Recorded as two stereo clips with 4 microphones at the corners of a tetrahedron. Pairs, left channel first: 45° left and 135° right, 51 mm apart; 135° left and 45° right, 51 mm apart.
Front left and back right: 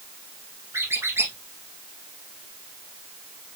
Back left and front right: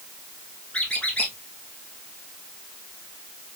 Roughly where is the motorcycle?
I don't hear a motorcycle.